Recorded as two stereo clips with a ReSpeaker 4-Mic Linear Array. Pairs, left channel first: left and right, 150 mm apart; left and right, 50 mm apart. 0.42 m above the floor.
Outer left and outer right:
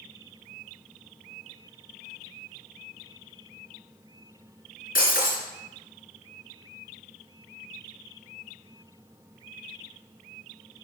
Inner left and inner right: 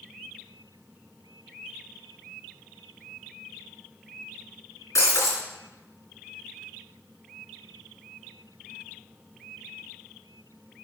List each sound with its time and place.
5.0 s breaking glass: 70° left (ahead or behind), 3 m